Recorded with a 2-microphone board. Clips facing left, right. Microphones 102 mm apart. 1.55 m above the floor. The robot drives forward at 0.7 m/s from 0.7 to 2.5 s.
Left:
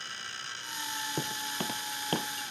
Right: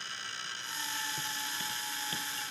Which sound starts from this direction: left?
Footsteps, at 1.2 s.